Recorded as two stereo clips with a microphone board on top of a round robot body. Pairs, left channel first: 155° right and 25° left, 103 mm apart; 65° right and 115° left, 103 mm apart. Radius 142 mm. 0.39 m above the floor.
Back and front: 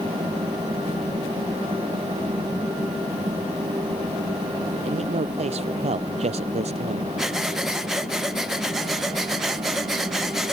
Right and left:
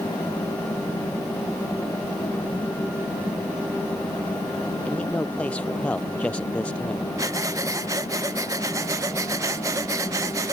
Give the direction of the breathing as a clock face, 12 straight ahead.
8 o'clock.